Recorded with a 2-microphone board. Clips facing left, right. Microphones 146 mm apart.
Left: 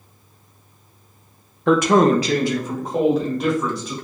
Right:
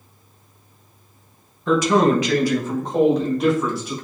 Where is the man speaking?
70° left (ahead or behind), 0.5 m; by 3.9 s 5° right (ahead or behind), 1.5 m.